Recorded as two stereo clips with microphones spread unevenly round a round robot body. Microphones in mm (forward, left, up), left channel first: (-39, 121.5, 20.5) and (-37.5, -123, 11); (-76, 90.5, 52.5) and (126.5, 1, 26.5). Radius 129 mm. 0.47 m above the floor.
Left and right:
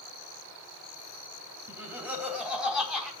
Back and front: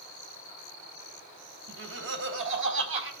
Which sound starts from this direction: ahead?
Laughter, at 1.7 s.